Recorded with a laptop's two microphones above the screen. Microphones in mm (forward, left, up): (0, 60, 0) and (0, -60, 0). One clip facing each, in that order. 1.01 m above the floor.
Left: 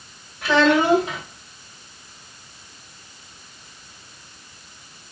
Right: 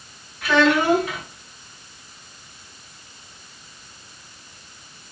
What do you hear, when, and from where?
0.4 s a child speaking: 35° left (ahead or behind), 1.6 m